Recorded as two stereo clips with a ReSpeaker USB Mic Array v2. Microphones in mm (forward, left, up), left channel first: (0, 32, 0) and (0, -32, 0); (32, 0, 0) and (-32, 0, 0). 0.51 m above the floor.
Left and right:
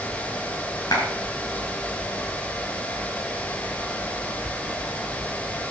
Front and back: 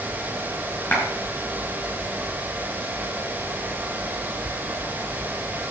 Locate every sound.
0.9 s a clap: 65° left, 6 m